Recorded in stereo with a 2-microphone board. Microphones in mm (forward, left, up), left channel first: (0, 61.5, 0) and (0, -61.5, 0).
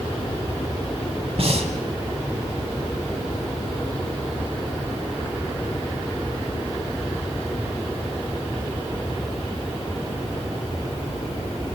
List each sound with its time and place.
1.4 s breathing: 65° right (ahead or behind), 2 m